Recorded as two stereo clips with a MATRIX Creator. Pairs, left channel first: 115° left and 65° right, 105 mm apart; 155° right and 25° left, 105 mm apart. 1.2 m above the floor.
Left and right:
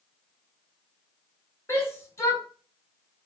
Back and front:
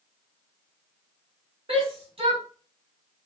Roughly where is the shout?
Ahead left.